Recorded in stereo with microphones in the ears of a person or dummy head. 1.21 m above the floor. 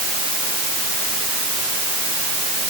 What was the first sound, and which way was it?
Only background noise.